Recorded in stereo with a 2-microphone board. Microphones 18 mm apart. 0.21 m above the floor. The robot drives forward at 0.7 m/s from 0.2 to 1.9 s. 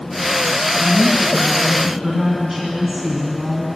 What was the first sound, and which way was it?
A woman speaking, 15° right (ahead or behind).